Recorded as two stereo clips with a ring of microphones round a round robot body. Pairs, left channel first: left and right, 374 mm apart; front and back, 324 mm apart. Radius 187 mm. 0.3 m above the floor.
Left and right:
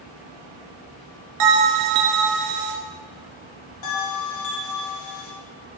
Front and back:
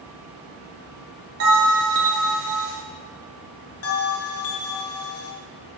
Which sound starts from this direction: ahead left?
A bell, at 3.8 s.